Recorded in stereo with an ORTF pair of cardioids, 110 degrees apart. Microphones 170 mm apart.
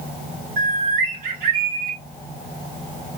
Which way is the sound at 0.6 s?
65° right.